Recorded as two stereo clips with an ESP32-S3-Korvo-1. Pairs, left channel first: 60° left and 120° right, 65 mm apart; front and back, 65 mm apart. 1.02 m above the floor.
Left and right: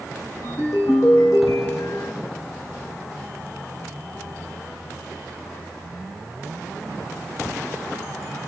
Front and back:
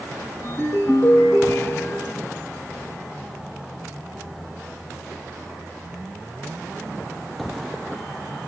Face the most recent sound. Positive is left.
turn(degrees=30)